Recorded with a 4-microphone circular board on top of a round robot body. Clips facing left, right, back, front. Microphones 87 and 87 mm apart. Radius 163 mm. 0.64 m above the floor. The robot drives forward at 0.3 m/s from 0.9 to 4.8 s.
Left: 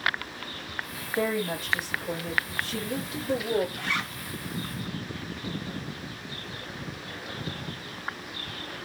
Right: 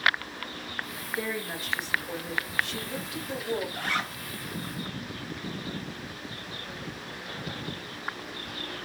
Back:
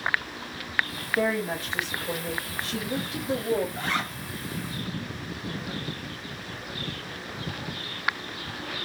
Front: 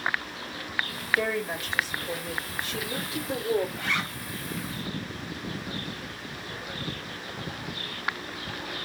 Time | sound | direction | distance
1.2 | a woman speaking | 125° left | 2 m
3.8 | a zipper | 130° right | 1.9 m